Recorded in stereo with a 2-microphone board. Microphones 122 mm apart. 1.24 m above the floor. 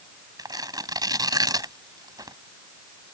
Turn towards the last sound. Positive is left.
turn(degrees=-35)  # may be behind; listen again after turning